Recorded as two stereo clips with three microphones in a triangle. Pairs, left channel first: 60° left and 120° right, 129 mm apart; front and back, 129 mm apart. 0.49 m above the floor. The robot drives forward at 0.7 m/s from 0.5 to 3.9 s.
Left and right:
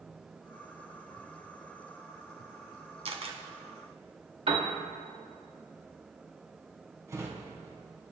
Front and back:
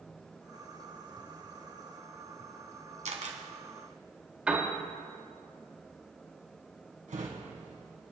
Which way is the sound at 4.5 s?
100° right.